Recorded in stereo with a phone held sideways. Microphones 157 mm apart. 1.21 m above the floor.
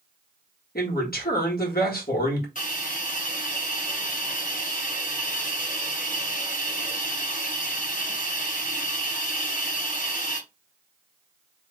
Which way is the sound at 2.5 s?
60° left (ahead or behind).